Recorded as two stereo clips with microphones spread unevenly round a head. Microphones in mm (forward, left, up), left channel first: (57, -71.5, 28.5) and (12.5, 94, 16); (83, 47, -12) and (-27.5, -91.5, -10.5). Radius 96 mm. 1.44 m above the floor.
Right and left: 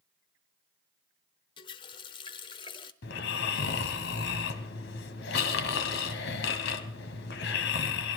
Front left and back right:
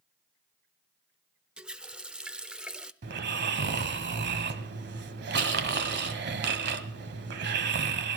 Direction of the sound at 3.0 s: 105° right.